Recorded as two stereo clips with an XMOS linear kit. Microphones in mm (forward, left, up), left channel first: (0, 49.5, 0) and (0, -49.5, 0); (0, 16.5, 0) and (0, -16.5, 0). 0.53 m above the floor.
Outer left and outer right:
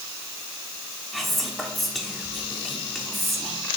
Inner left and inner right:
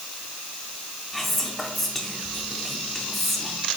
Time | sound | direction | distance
1.1 | whispering | centre (ahead or behind) | 0.9 m